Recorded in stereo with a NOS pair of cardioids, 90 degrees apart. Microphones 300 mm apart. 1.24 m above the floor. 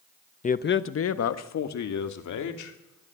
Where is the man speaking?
25° left, 0.8 m; by 3.1 s 70° left, 3 m.